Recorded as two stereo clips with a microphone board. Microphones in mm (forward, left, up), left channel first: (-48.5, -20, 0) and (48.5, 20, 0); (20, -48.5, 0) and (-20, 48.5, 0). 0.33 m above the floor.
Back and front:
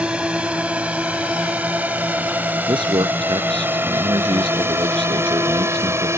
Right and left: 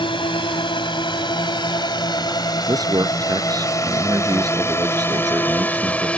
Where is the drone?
55° right; by 6.2 s straight ahead.